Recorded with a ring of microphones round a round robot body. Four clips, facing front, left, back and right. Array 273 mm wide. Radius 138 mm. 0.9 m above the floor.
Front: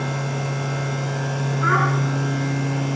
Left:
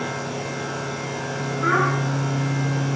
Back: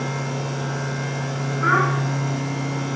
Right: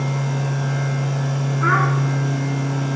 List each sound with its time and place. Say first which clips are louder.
1.6 s a child speaking: right 1 dB, back 1 dB; 100° right, 5 m